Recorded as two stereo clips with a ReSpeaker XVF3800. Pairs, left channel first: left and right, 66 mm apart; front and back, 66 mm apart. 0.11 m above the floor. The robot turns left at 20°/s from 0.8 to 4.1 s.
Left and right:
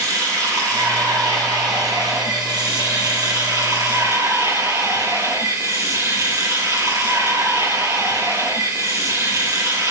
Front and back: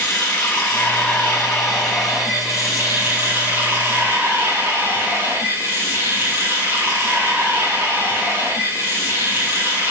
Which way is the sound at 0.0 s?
60° right.